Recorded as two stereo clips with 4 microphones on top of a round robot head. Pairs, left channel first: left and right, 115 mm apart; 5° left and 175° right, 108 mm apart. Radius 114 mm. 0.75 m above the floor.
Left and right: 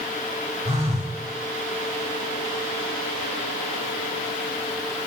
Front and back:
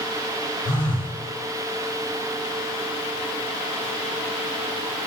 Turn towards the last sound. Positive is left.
turn(degrees=-130)